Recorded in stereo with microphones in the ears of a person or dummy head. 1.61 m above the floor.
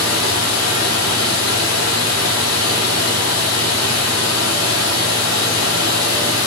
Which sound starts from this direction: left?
Running water, at 0.0 s.